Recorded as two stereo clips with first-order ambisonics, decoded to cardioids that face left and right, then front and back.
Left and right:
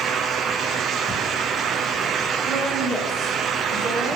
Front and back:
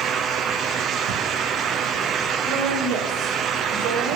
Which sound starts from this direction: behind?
A woman speaking, at 2.4 s.